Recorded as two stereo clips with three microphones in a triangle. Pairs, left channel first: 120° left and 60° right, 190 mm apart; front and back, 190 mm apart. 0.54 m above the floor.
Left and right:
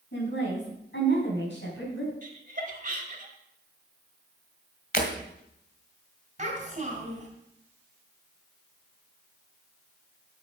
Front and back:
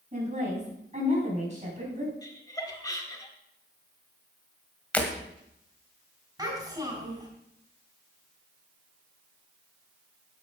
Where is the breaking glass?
80° left, 1.8 m.